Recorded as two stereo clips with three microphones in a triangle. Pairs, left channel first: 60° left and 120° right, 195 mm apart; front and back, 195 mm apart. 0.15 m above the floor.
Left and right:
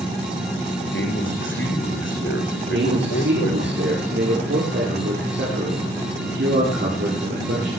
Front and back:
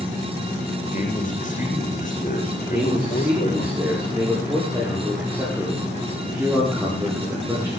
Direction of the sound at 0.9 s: 50° left.